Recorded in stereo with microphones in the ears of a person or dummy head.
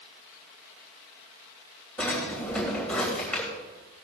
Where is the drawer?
5° left (ahead or behind), 3 m.